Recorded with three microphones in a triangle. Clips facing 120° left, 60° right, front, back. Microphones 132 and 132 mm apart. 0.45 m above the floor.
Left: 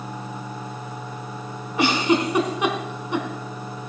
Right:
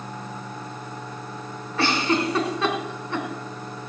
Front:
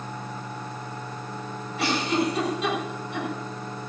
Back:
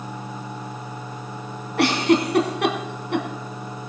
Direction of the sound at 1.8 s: 165° right.